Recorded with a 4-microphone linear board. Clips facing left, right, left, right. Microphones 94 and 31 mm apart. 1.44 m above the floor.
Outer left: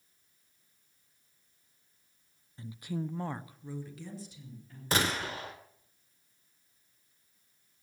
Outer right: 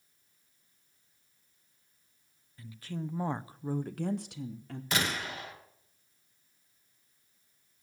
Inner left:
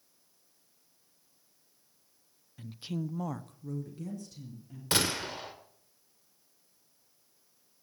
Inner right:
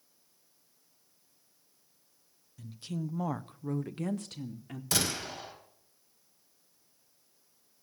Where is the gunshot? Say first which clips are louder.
Outer left 2 dB, inner left 2 dB; 35° left (ahead or behind), 2.5 m.